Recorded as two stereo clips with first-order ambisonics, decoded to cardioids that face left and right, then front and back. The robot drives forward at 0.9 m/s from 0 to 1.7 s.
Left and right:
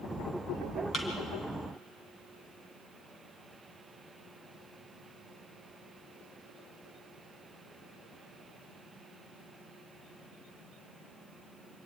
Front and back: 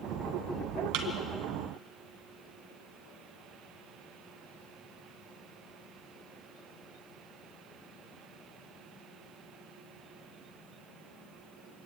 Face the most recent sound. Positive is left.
turn(degrees=170)